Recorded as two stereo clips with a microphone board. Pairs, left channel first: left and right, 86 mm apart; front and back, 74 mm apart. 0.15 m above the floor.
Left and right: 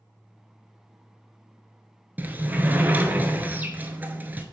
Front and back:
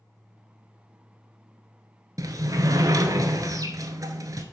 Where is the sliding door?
155° right, 0.7 m.